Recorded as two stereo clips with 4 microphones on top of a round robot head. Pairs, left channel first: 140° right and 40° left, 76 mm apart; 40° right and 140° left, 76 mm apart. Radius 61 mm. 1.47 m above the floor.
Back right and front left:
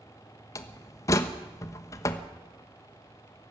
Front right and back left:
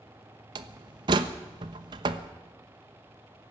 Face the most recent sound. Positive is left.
turn(degrees=170)